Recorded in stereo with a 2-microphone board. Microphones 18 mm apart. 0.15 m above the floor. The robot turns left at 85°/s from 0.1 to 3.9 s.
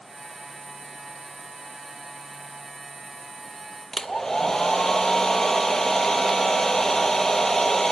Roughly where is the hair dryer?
Left.